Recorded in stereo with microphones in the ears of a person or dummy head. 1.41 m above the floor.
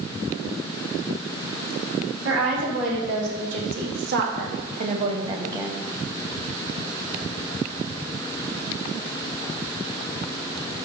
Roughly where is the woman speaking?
Right.